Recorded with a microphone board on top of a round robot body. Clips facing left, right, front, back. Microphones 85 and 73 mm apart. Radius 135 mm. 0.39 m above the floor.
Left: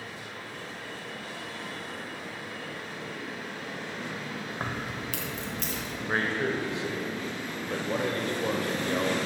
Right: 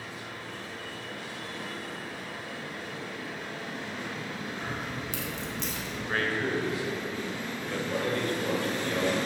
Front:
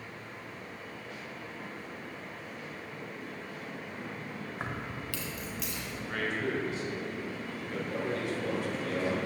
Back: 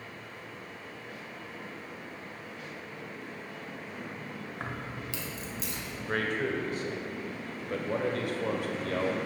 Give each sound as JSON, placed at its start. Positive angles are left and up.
{"t": 4.6, "sound": "keys jangling", "azimuth_deg": 80, "distance_m": 1.2}
{"t": 6.1, "sound": "a man speaking", "azimuth_deg": 155, "distance_m": 1.8}